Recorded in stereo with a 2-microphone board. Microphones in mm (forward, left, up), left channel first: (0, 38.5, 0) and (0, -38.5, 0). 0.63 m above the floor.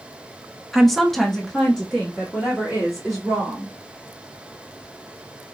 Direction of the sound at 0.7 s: Centre (ahead or behind).